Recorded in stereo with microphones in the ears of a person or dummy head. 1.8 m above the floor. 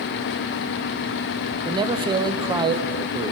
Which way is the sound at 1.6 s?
25° right (ahead or behind).